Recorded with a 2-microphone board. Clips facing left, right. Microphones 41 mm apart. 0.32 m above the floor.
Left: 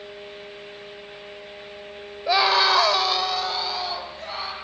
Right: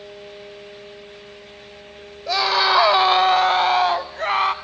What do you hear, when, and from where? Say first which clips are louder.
2.3 s a scream: even; 20° left (ahead or behind), 1.0 m; by 4.5 s 60° right (ahead or behind), 2.5 m